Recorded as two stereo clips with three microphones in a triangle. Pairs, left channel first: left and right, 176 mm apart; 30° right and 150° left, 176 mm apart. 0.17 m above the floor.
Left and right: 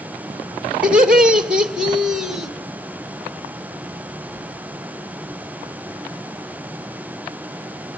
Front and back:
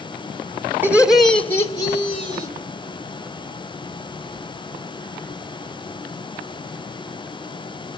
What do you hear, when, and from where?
0.8 s laughter: 165° right, 1.1 m; by 2.5 s straight ahead, 1.5 m